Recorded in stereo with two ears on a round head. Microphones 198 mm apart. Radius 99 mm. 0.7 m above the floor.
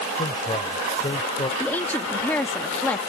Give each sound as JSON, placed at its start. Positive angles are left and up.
{"t": 0.2, "sound": "a man speaking", "side_deg": 25}
{"t": 1.6, "sound": "a woman speaking", "side_deg": 10}